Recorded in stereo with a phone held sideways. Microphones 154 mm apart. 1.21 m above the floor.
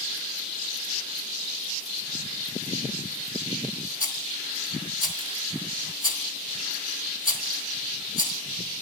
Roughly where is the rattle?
Left.